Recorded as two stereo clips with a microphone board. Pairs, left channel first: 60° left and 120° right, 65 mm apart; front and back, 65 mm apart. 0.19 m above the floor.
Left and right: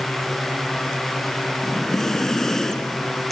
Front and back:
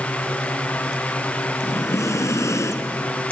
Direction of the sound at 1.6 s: 25° right.